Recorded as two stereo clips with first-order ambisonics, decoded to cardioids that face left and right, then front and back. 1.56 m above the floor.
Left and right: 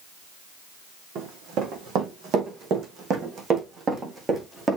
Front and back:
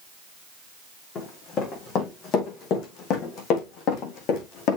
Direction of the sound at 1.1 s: 60° right.